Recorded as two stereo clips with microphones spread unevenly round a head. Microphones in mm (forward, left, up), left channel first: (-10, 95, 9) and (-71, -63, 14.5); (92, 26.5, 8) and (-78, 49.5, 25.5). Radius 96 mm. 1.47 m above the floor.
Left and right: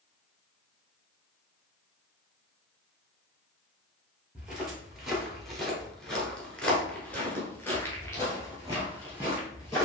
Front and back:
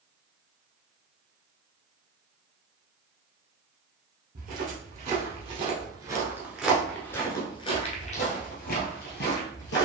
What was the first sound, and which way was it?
Footsteps, 165° left.